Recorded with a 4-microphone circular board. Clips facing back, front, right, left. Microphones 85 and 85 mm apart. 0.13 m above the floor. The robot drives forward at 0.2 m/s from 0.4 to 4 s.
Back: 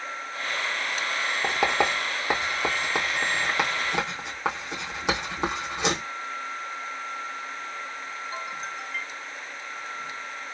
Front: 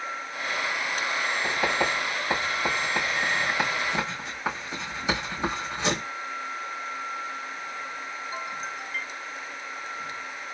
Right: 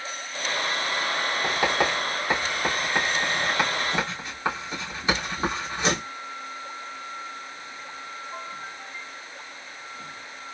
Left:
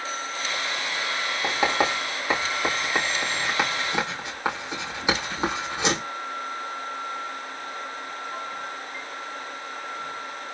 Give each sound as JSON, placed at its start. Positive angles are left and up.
{"t": 1.4, "sound": "writing", "azimuth_deg": 160, "distance_m": 1.9}